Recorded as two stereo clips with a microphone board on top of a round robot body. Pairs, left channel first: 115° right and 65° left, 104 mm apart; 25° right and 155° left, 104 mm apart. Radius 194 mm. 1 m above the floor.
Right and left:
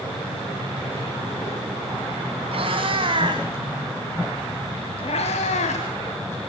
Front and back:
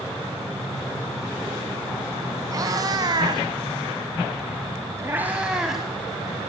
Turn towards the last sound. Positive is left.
turn(degrees=-115)